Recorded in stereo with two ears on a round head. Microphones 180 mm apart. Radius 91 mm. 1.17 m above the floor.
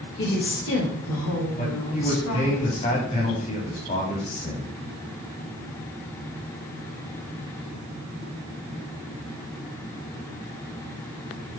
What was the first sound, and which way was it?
A woman speaking, 60° left (ahead or behind).